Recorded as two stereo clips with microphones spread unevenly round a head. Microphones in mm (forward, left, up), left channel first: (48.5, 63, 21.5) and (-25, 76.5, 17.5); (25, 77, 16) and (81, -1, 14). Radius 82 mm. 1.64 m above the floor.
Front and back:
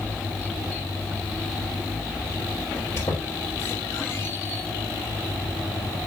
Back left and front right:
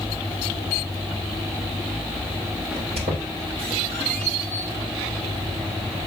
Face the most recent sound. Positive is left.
turn(degrees=-75)